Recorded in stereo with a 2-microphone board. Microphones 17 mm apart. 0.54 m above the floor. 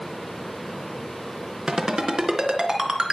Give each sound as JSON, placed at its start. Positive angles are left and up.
{"t": 1.7, "sound": "a ringtone", "side_deg": -65, "distance_m": 3.5}